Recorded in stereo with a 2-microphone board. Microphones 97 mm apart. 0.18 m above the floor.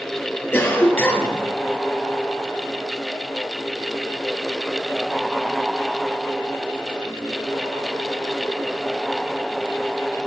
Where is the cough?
25° left (ahead or behind), 2.5 m.